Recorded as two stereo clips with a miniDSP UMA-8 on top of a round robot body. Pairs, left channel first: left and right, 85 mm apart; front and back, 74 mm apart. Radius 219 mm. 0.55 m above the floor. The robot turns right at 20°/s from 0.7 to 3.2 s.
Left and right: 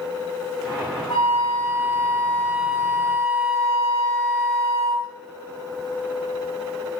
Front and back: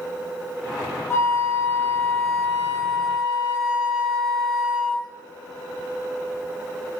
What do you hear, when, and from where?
1.1 s a flute: 60° left, 1.5 m; by 5.1 s 105° left, 1.5 m